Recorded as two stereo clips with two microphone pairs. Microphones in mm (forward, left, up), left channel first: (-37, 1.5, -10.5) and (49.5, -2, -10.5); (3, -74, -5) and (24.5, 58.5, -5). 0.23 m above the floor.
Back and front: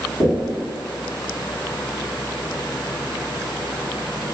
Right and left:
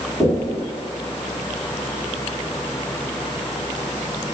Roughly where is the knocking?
Behind.